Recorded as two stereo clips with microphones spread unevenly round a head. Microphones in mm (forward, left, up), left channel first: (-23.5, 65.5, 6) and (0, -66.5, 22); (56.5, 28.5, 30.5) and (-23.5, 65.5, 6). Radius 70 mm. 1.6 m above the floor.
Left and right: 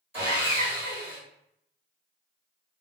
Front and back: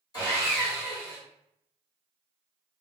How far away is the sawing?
About 2.0 m.